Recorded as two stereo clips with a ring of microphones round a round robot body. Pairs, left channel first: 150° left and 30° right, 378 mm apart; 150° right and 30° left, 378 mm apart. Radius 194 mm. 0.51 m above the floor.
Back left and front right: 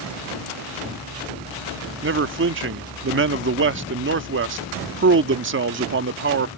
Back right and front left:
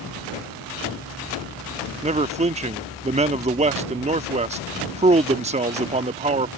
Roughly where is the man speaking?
Ahead right.